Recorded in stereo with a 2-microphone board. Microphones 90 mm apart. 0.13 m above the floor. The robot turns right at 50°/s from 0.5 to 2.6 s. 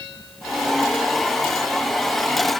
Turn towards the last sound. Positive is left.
No sound to turn to.